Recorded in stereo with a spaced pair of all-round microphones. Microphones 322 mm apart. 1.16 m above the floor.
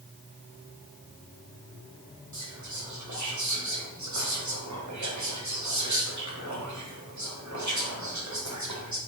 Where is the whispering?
60° right (ahead or behind), 0.7 m.